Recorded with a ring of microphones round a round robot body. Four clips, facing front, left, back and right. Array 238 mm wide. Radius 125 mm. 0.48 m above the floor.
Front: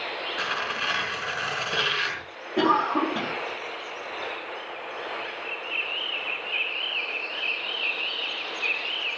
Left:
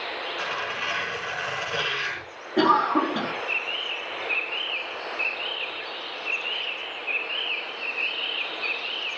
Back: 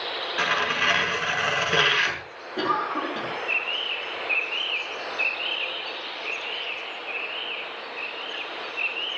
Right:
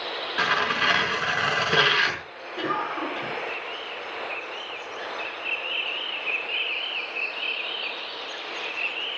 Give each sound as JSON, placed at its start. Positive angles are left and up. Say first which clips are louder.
{"t": 0.4, "sound": "tearing paper", "louder": "right 9 dB, back 6 dB", "azimuth_deg": -110, "distance_m": 5.5}
{"t": 2.6, "sound": "a cough", "louder": "left 8 dB, front 4 dB", "azimuth_deg": 65, "distance_m": 4.5}